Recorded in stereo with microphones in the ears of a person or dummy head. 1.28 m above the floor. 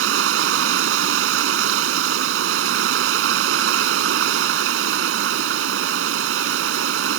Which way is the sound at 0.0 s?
80° right.